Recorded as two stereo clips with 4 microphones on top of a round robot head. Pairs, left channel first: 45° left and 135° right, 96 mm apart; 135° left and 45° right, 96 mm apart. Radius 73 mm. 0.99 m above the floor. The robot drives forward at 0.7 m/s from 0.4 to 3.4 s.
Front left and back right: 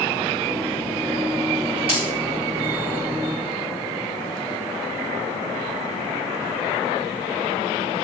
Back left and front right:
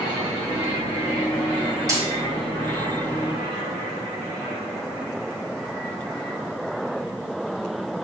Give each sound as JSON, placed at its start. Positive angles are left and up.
{"t": 1.9, "sound": "a dropped coin", "azimuth_deg": -100, "distance_m": 4.0}